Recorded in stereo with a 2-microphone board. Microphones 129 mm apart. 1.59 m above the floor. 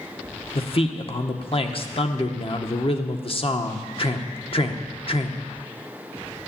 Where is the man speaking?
45° left (ahead or behind), 1.3 m.